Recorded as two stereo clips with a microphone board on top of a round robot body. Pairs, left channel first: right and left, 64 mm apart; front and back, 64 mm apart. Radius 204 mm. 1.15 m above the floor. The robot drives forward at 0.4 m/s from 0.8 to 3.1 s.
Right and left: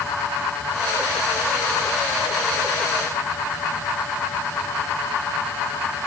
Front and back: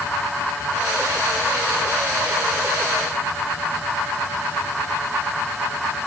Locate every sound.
Only background noise.